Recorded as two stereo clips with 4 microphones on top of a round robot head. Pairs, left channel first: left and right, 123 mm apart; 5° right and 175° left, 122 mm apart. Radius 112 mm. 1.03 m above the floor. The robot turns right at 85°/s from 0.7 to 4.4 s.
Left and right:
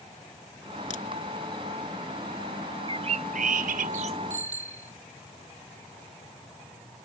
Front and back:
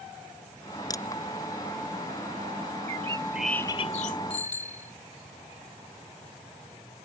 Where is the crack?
50° left; by 1.0 s 65° left.